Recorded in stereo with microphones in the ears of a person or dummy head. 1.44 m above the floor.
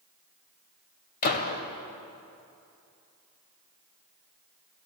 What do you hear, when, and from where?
1.2 s a gunshot: 50° left (ahead or behind), 2 m